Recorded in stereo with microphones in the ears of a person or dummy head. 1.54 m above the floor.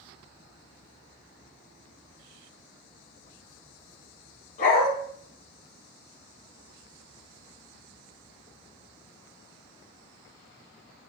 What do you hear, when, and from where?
4.6 s a dog barking: 45° left (ahead or behind), 5.5 m